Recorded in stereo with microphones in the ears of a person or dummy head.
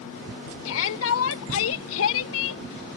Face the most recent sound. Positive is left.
turn(degrees=85)